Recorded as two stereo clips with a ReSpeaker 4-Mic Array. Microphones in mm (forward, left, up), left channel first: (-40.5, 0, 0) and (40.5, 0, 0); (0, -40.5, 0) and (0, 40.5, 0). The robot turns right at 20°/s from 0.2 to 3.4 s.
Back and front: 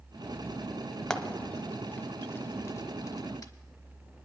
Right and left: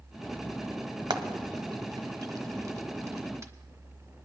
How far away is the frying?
About 1.0 m.